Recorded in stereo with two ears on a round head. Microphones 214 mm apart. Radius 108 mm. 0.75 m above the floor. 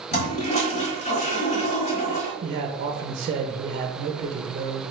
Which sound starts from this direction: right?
A man speaking, at 2.4 s.